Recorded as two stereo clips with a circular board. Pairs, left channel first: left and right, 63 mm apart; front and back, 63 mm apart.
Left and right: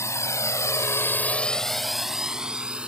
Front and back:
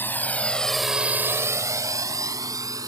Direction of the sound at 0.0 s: 55° left.